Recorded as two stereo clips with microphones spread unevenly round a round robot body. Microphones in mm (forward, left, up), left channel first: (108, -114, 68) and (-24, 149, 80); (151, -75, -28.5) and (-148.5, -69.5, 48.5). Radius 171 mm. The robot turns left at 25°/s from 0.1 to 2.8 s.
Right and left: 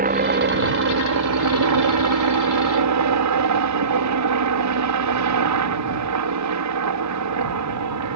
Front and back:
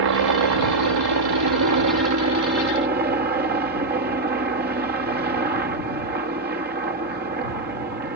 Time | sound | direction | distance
0.0 | a helicopter | 175° left | ?